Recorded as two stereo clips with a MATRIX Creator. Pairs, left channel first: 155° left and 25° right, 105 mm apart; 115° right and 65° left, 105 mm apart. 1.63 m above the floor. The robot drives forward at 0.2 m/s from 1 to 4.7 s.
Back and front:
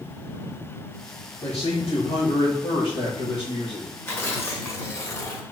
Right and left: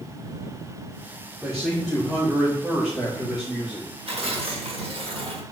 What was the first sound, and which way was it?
A man speaking, 155° left.